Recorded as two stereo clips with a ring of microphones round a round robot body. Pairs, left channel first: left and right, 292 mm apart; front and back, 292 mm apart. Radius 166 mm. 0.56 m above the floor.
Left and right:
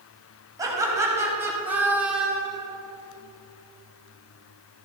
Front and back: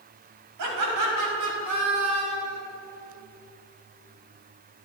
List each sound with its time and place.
0.6 s laughter: 165° right, 4.5 m; by 2.6 s straight behind, 2.5 m